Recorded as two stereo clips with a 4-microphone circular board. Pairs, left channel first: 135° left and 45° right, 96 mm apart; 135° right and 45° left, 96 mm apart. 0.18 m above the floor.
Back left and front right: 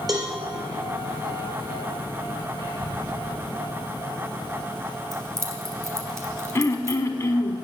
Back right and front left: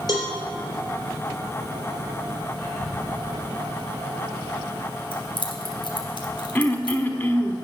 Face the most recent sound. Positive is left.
turn(degrees=170)